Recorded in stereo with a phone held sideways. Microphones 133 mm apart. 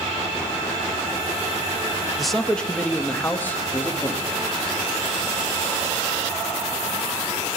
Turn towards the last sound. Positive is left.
turn(degrees=15)  # may be behind; listen again after turning